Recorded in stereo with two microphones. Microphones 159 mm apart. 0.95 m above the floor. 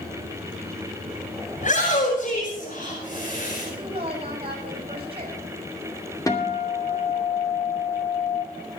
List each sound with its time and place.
1.6 s a shout: 55° left (ahead or behind), 6 m; by 3.7 s 65° left (ahead or behind), 5 m
3.6 s a woman speaking: 35° right (ahead or behind), 7 m
6.3 s a guitar: 20° left (ahead or behind), 2.5 m